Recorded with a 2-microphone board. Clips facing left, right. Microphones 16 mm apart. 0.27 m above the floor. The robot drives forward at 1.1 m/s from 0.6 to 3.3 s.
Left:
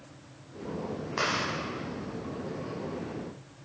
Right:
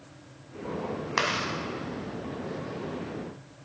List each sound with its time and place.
1.2 s chewing: 50° right (ahead or behind), 2 m